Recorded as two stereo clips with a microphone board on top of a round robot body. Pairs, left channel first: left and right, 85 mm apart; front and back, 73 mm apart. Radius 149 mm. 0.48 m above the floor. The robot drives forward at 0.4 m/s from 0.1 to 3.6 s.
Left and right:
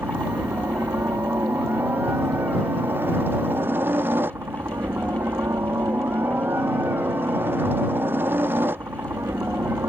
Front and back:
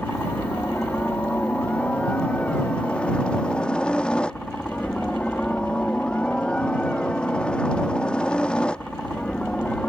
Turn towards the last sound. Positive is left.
turn(degrees=-65)